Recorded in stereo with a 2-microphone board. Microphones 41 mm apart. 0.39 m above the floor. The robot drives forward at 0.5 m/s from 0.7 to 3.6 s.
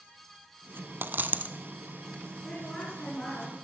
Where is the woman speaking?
25° left (ahead or behind), 5 m; by 3.5 s 30° left (ahead or behind), 4.5 m.